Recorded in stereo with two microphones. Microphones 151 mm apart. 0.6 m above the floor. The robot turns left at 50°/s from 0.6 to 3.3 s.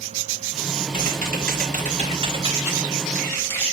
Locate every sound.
0.9 s typing on a keyboard: 75° right, 3.5 m; by 3.6 s 165° left, 3.5 m